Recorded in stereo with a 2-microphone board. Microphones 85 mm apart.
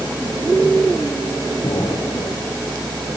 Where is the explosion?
50° left (ahead or behind), 4.5 m.